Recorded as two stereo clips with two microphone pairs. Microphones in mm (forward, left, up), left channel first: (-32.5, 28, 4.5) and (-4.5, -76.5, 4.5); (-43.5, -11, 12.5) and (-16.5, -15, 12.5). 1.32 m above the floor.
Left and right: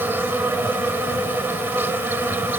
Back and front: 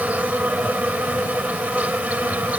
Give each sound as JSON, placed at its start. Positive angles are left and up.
{"t": 0.0, "sound": "an insect", "azimuth_deg": -5}